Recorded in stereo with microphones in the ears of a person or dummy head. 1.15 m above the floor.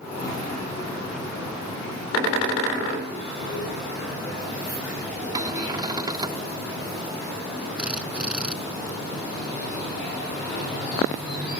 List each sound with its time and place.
5.3 s a cupboard door: 25° right (ahead or behind)
7.8 s a drill: 5° right (ahead or behind)